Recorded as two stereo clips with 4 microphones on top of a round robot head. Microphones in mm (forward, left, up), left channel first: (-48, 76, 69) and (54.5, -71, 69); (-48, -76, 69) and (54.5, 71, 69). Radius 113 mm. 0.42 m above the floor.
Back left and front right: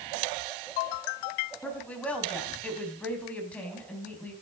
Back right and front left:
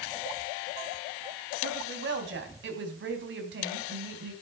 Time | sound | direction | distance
1.6 | a woman speaking | 40° left | 4 m